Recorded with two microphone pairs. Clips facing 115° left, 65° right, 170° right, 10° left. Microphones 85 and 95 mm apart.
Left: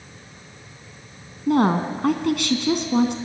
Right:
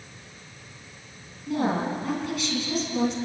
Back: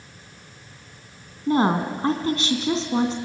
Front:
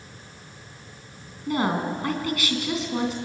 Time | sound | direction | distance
1.5 | a woman speaking | 130° left | 3 m